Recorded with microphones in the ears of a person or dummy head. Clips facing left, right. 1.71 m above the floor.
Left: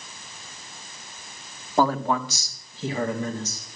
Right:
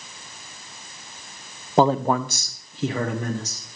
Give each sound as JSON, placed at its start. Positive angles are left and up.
{"t": 1.8, "sound": "a man speaking", "side_deg": -10, "distance_m": 0.5}